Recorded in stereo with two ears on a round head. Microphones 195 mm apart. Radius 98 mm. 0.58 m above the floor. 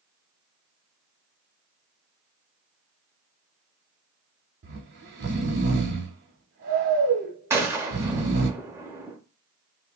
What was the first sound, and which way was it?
Snoring, 50° right (ahead or behind).